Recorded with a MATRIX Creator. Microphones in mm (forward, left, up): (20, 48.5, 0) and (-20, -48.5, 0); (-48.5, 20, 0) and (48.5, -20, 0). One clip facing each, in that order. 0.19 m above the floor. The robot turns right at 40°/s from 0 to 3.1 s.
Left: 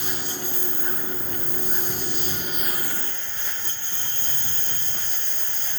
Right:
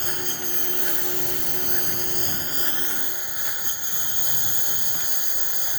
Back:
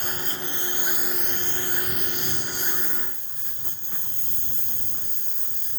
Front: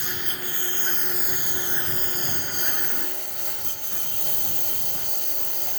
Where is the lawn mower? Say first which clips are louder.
Even, back 2 dB; 160° right; by 5.8 s 35° right.